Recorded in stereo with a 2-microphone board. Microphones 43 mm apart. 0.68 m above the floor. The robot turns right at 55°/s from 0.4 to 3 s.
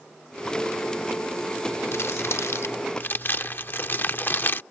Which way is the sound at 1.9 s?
70° left (ahead or behind).